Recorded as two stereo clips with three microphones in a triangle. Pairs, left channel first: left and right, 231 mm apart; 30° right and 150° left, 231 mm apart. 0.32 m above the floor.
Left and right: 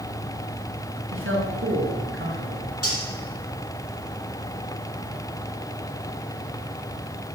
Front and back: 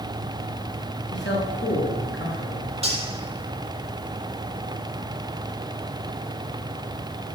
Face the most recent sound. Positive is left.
turn(degrees=85)